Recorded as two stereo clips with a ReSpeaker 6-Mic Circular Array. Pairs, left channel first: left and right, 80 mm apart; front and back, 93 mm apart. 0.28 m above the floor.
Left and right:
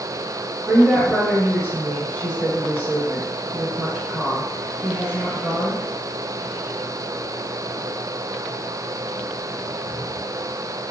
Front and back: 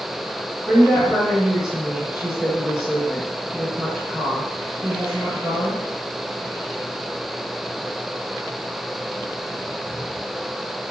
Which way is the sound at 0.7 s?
110° right.